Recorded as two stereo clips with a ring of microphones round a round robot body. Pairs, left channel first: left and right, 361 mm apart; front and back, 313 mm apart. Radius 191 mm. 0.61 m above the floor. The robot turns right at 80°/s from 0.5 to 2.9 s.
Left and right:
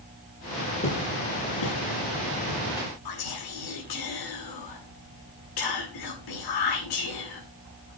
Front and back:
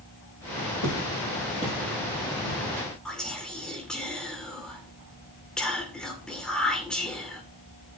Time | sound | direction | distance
0.8 | footsteps | 15° left | 7 m
3.0 | whispering | 85° left | 2 m